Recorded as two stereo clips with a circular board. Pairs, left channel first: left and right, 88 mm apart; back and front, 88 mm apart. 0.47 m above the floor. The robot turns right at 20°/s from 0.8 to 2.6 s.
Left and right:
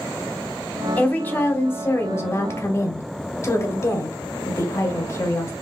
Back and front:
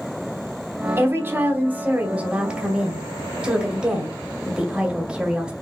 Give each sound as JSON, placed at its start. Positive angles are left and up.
{"t": 1.0, "sound": "a woman speaking", "azimuth_deg": 35, "distance_m": 1.0}